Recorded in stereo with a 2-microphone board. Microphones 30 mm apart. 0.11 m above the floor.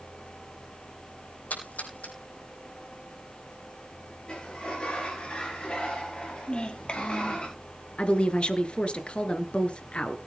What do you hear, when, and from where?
1.5 s a splash: 70° left (ahead or behind), 5.5 m
4.3 s a sliding door: 30° left (ahead or behind), 5.5 m
6.5 s a child speaking: 35° left (ahead or behind), 2.5 m
8.0 s a woman speaking: 35° left (ahead or behind), 1.7 m